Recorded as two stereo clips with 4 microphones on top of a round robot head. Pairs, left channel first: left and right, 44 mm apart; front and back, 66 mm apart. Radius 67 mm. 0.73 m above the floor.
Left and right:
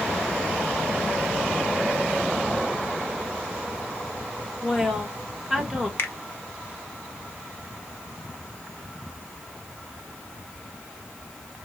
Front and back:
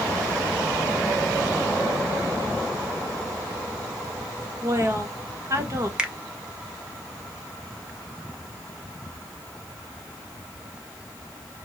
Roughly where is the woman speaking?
Behind.